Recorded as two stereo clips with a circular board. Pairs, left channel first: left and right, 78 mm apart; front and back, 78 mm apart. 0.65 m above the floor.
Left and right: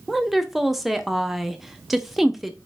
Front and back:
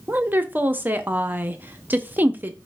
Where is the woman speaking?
175° right, 0.5 m.